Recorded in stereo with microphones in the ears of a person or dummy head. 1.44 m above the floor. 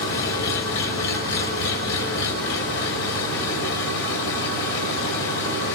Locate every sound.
0.0 s an engine running: 70° left (ahead or behind), 6 m